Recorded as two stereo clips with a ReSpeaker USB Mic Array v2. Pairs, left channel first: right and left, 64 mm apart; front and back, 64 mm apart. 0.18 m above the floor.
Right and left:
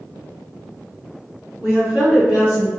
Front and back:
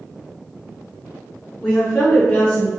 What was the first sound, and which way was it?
A woman speaking, 80° left.